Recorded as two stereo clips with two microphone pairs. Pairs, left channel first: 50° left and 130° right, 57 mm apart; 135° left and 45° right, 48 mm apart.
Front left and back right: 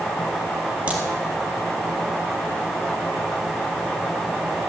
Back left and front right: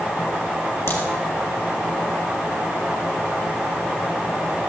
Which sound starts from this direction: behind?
A crack, at 0.9 s.